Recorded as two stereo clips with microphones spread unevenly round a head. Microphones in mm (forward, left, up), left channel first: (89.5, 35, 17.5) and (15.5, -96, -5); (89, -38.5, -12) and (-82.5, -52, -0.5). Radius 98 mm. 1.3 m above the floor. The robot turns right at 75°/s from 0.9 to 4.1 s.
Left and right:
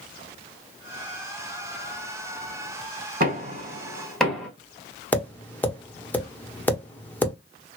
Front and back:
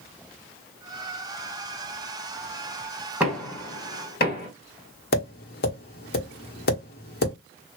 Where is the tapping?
10° right, 1.5 m.